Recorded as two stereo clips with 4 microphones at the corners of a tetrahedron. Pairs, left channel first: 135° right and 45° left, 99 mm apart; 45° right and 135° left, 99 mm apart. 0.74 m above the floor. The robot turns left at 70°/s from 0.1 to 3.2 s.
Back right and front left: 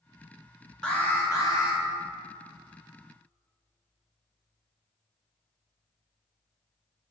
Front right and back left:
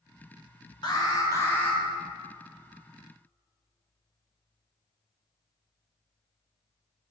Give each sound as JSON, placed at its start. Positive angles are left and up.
{"t": 0.8, "sound": "an alarm", "azimuth_deg": -55, "distance_m": 1.9}